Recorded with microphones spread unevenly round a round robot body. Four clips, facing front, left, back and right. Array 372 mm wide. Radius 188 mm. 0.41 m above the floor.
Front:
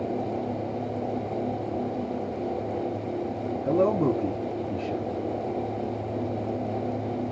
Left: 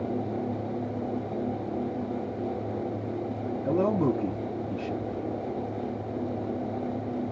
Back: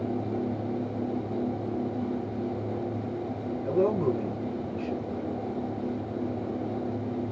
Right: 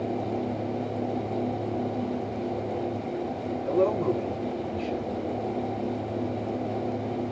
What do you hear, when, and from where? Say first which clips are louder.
3.6 s a man speaking: right 1 dB, front 2 dB; 65° left, 2.5 m